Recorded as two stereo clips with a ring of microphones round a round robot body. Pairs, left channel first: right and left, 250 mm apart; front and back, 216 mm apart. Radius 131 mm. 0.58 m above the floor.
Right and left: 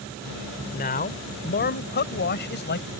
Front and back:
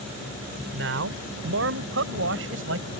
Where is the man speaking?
145° right; by 2.9 s 140° right.